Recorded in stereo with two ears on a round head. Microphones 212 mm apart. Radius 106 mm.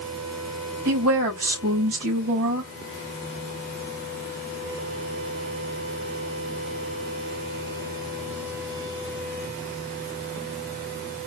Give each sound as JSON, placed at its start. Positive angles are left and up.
{"t": 0.8, "sound": "a woman speaking", "side_deg": -65, "distance_m": 3.0}